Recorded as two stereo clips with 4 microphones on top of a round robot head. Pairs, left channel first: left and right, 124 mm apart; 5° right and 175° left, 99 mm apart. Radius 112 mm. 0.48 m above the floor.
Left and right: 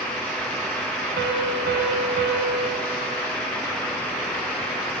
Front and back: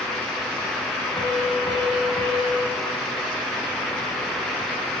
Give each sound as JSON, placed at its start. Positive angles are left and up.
{"t": 1.2, "sound": "a piano", "azimuth_deg": -75, "distance_m": 0.7}